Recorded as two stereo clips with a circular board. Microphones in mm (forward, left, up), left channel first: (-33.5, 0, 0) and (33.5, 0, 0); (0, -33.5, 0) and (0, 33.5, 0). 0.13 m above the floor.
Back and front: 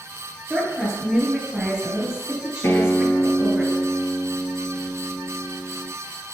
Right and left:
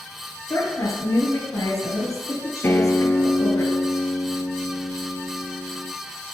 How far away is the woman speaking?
About 2.5 m.